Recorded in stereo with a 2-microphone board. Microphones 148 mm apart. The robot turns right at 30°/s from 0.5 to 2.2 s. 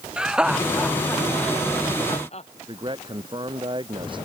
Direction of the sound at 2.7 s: 35° right (ahead or behind).